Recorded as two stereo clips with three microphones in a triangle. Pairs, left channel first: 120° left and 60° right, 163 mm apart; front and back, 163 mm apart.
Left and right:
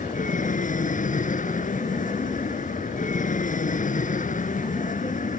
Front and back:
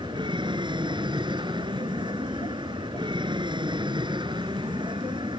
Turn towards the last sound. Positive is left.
turn(degrees=125)